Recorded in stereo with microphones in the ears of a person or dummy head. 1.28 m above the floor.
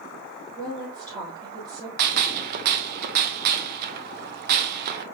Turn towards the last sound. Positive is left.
turn(degrees=-50)  # may be behind; listen again after turning